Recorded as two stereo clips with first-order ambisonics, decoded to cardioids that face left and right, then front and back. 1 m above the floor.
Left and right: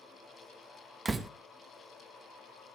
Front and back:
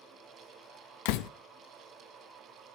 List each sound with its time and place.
1.1 s a door slam: 15° right, 0.7 m